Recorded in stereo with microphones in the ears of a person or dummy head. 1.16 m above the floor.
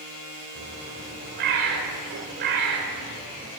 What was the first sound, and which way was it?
A bird, 55° right (ahead or behind).